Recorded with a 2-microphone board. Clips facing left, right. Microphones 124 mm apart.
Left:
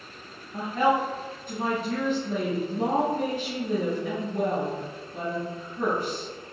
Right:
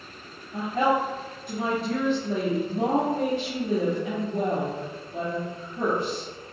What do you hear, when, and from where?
0.5 s a woman speaking: 75° right (ahead or behind), 1.6 m